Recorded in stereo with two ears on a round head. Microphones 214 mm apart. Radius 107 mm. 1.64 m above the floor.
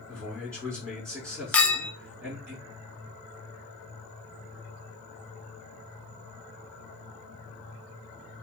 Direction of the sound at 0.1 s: 10° right (ahead or behind).